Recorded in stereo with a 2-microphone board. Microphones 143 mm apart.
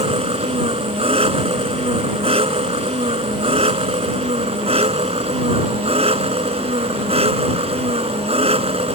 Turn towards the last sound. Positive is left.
turn(degrees=-45)  # may be behind; listen again after turning